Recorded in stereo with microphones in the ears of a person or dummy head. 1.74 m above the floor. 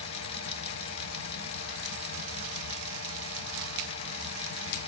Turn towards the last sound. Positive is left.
turn(degrees=40)  # may be behind; listen again after turning